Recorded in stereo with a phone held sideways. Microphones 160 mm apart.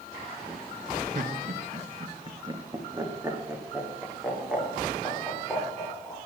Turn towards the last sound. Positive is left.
turn(degrees=5)  # may be behind; listen again after turning